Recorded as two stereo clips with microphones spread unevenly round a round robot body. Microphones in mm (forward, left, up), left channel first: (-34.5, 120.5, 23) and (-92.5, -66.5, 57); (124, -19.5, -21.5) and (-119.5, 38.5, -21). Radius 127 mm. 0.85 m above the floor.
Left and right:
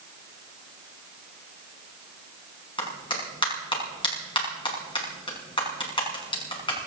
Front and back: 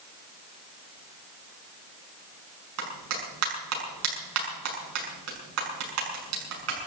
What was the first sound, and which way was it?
A clap, 140° left.